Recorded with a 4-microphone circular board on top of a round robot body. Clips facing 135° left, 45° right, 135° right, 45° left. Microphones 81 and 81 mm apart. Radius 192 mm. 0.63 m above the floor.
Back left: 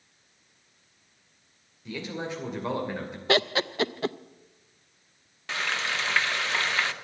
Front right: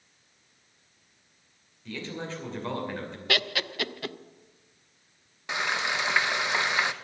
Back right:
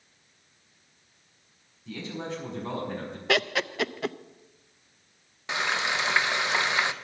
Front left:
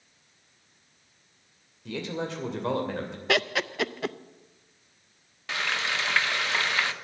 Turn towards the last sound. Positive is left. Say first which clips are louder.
# front right 1 dB, back right 2 dB
turn(degrees=-95)